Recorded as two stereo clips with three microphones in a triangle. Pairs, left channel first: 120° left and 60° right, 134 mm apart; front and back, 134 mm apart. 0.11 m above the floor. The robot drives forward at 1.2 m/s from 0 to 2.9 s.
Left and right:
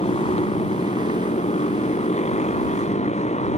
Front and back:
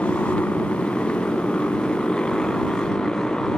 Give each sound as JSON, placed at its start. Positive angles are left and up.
{"t": 0.0, "sound": "a motorcycle", "azimuth_deg": 80}